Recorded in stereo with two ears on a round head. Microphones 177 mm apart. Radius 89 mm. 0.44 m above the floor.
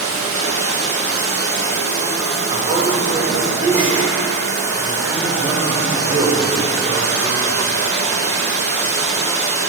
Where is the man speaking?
25° right (ahead or behind), 1.3 m.